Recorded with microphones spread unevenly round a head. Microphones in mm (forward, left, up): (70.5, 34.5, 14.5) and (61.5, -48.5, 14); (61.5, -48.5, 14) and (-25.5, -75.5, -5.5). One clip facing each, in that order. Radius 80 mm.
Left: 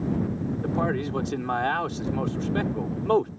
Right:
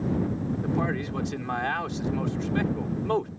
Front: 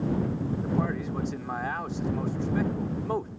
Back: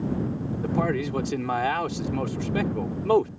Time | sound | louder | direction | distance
0.6 | a man speaking | left 3 dB, back 7 dB | 150° left | ?